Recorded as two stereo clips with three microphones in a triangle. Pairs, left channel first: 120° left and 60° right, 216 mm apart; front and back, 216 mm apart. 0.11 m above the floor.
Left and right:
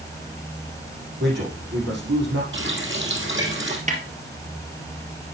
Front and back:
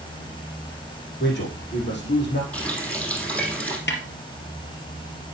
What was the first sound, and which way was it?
A man speaking, 30° right.